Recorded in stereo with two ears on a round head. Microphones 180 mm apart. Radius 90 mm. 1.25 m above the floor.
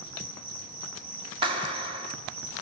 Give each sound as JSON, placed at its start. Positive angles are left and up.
{"t": 0.0, "sound": "an insect", "side_deg": -70, "distance_m": 3.0}
{"t": 1.4, "sound": "a clap", "side_deg": -25, "distance_m": 2.5}